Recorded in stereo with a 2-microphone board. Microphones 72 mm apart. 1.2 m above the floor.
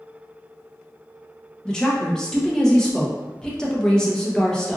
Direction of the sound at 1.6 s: 10° left (ahead or behind).